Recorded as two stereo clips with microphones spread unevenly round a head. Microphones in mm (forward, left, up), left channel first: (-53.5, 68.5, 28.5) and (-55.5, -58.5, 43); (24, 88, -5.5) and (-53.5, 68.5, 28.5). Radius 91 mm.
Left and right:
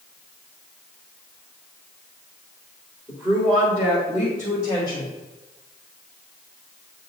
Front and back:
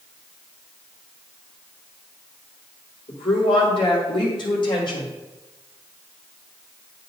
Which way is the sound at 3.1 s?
10° right.